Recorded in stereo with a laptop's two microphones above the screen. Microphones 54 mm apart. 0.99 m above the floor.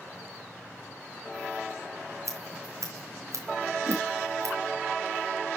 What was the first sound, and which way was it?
Scissors, 75° right (ahead or behind).